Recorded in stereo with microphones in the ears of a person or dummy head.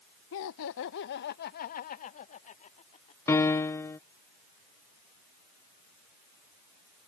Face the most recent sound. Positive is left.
turn(degrees=10)  # may be behind; listen again after turning